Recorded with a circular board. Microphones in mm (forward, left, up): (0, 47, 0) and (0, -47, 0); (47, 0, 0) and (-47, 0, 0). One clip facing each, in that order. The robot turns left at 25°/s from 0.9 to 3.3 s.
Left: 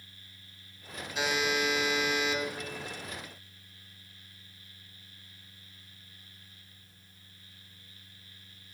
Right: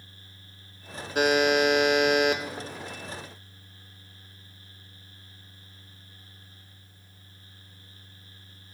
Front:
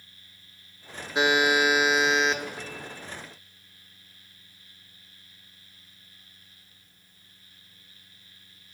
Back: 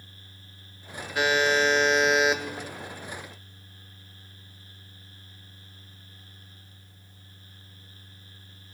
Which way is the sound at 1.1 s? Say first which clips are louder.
Right 9 dB, front 1 dB; 65° right.